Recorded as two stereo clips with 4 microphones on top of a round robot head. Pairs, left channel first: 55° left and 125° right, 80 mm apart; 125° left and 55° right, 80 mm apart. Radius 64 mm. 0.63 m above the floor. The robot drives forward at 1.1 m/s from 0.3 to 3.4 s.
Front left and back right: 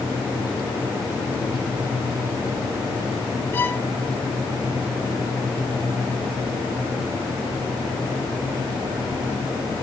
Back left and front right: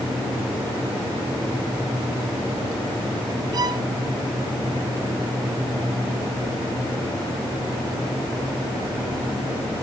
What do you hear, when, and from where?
3.5 s a violin: 10° right, 1.4 m